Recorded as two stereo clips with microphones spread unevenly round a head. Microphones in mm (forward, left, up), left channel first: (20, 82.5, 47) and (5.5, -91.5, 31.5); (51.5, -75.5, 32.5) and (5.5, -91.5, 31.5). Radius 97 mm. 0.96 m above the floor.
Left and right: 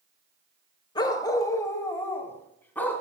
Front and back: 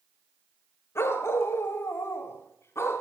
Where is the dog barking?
25° left, 1.2 m; by 3.0 s 5° left, 2.5 m.